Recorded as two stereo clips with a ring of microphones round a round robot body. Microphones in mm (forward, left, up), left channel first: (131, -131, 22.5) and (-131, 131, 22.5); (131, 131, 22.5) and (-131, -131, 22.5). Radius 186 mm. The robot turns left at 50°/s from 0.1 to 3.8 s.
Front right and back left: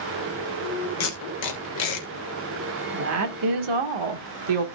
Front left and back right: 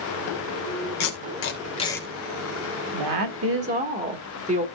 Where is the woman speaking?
165° right, 2 m; by 4.7 s 155° left, 2 m.